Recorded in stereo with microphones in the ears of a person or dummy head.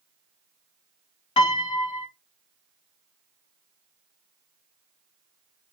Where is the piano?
25° left (ahead or behind), 0.6 m.